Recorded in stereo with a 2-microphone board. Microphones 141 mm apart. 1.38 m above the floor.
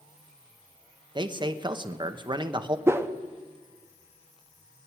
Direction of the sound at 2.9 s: 15° right (ahead or behind).